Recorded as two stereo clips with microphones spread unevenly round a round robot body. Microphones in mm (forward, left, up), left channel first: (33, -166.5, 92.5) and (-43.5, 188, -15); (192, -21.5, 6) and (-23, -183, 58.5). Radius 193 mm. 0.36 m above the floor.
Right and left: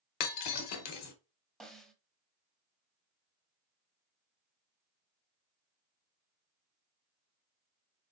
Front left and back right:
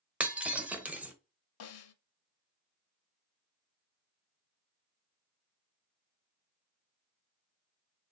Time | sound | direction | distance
0.2 | breaking glass | 50° right | 1.1 m
1.6 | a snare drum | 20° left | 0.6 m